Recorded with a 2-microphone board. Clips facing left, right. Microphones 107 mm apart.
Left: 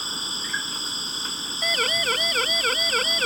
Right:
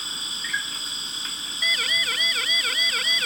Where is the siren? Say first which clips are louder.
Left 5 dB; 45° left (ahead or behind); by 3.3 s 40° left (ahead or behind).